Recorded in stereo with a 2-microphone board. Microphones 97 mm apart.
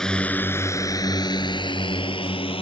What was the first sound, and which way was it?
A drone, 5° left (ahead or behind).